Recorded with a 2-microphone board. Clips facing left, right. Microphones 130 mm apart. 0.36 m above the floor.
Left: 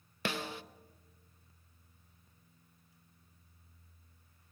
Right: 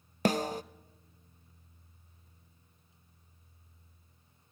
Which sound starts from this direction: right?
A snare drum, at 0.2 s.